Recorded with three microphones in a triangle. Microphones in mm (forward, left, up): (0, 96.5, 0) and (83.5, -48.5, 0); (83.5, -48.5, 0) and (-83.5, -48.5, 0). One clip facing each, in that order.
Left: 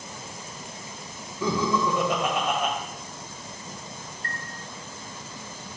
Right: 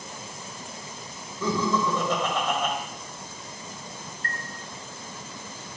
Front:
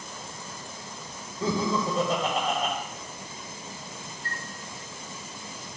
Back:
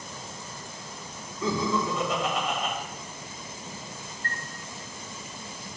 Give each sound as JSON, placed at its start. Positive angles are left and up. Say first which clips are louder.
{"t": 1.4, "sound": "laughter", "louder": "left 1 dB, even", "azimuth_deg": 45, "distance_m": 2.0}
{"t": 4.2, "sound": "a chime", "louder": "right 2 dB, back 3 dB", "azimuth_deg": -80, "distance_m": 0.8}